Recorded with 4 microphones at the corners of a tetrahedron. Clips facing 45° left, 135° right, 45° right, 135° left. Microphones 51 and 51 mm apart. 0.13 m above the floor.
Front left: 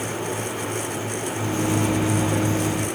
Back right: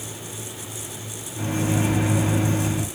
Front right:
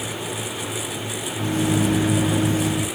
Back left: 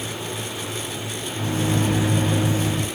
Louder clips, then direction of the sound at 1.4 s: Even, front right 2 dB; 125° right.